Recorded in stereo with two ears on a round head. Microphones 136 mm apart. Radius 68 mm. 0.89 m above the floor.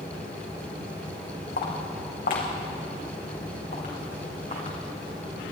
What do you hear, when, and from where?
1.6 s footsteps: 70° left (ahead or behind), 3.5 m; by 5.5 s 45° left (ahead or behind), 5 m